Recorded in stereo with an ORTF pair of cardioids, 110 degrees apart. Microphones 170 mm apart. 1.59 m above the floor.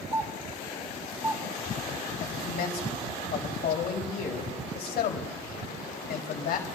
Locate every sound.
0.1 s a doorbell: 15° right, 4 m
2.2 s a man speaking: 65° left, 3.5 m